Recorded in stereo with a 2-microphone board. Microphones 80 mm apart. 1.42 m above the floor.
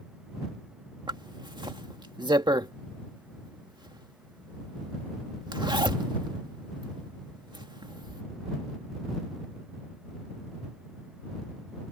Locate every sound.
1.1 s a zipper: 70° right (ahead or behind)